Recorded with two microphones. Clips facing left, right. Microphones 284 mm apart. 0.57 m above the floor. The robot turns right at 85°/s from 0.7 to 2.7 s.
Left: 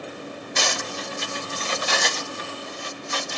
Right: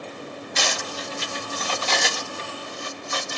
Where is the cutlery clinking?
55° left (ahead or behind), 0.8 m; by 3.4 s 50° right (ahead or behind), 0.8 m.